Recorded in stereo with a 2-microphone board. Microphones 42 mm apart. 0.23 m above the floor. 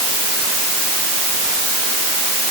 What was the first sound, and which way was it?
Only background noise.